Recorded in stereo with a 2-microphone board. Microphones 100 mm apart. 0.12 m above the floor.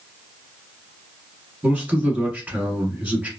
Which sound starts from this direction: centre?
A man speaking, at 1.6 s.